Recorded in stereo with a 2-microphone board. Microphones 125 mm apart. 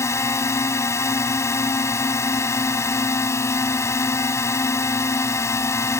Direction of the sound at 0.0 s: 20° left (ahead or behind).